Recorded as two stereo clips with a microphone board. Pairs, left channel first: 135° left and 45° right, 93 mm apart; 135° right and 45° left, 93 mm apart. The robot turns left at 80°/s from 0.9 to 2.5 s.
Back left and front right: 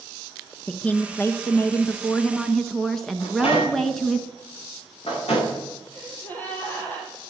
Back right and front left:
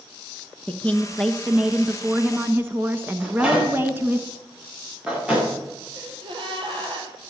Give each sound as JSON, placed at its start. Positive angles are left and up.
{"t": 0.7, "sound": "a woman speaking", "azimuth_deg": 175, "distance_m": 1.1}
{"t": 3.2, "sound": "a microwave", "azimuth_deg": 125, "distance_m": 9.0}
{"t": 5.9, "sound": "a gasp", "azimuth_deg": 65, "distance_m": 4.0}